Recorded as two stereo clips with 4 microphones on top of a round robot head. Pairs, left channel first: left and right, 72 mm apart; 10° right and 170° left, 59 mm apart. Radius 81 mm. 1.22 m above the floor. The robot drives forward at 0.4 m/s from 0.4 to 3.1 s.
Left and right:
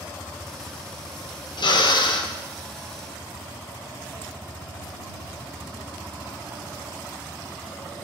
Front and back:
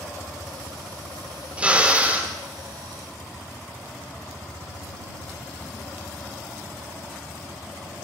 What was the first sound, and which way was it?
A drill, 100° left.